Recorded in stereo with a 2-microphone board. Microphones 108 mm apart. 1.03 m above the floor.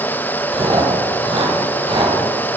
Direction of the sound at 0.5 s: 50° right (ahead or behind).